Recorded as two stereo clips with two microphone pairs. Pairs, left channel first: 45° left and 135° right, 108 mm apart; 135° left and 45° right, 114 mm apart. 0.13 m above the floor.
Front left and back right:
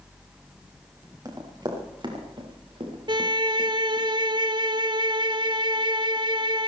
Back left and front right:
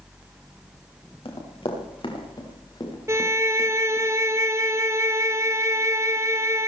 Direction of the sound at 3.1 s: 105° right.